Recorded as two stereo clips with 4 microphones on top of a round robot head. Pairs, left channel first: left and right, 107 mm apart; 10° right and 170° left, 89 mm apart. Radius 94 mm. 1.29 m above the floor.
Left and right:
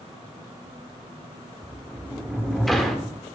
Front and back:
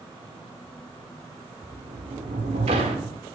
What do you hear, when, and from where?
1.6 s a sliding door: 175° left, 1.3 m